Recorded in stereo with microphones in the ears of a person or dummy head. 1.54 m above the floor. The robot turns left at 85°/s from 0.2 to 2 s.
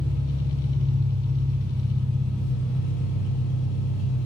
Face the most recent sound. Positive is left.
turn(degrees=70)